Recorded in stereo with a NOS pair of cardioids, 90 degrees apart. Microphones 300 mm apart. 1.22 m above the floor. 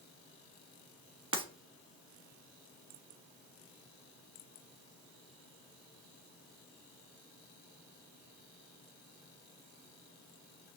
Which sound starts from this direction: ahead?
Breaking glass, at 1.3 s.